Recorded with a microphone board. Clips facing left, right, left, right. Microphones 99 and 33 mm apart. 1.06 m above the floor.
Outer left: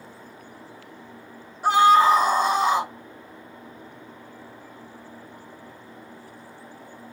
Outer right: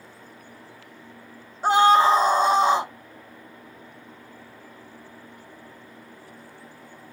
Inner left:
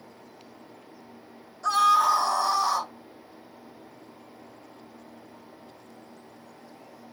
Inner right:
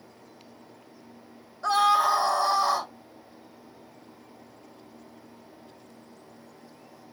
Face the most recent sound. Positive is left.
turn(degrees=-30)  # may be behind; listen again after turning